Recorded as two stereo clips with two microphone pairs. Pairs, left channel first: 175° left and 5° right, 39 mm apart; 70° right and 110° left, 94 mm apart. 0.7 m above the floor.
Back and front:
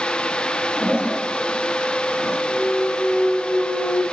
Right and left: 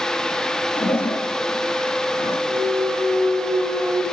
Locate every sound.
0.8 s a toilet flushing: 60° right, 3 m
2.5 s a clunk: 165° left, 1.7 m